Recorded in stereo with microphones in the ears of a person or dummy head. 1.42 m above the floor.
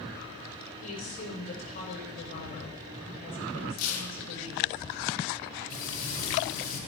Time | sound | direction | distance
0.8 | a woman speaking | 45° left (ahead or behind) | 7.5 m
3.8 | tearing paper | 85° left | 3 m
5.7 | frying | 45° left (ahead or behind) | 6 m